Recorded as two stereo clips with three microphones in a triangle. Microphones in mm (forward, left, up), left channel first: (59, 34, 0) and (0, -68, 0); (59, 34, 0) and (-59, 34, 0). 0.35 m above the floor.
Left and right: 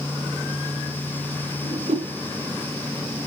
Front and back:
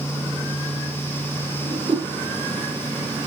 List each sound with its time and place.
1.6 s a whoosh: 135° right, 4 m